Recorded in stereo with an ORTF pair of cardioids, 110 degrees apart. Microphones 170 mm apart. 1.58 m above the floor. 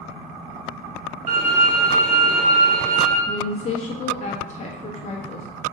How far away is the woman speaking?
About 1.1 m.